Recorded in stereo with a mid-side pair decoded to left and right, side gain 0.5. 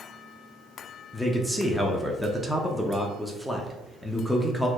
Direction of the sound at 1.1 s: 5° left.